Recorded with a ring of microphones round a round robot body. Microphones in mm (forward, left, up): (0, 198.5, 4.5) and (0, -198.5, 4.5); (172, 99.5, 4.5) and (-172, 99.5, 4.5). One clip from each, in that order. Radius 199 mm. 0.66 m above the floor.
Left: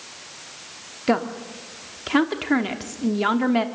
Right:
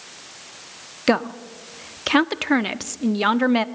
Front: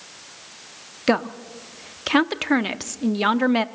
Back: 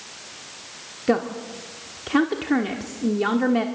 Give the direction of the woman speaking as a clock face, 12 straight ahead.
1 o'clock.